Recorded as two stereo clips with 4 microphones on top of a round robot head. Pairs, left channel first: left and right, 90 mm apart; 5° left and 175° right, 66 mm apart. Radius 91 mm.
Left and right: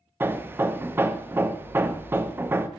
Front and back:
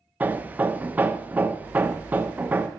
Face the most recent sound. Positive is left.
turn(degrees=-130)